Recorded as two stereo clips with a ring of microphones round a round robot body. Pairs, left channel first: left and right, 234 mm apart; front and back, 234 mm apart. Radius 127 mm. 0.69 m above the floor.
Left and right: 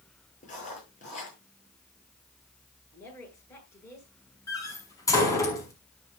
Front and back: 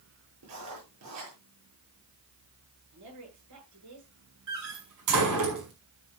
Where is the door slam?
165° left, 5.5 m.